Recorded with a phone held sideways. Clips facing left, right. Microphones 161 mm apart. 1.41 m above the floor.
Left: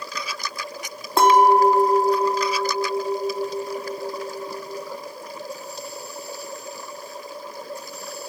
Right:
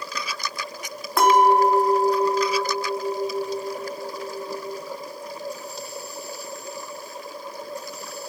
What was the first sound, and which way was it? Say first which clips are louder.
A clink: left 2 dB; 25° left (ahead or behind).